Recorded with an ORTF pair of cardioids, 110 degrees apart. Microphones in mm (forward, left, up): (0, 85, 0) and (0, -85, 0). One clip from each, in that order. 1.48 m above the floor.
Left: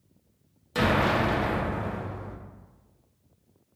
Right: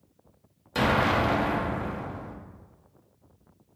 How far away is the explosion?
About 0.6 m.